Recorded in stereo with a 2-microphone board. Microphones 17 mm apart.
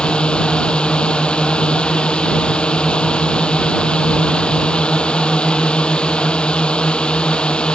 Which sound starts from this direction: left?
A drone, at 0.0 s.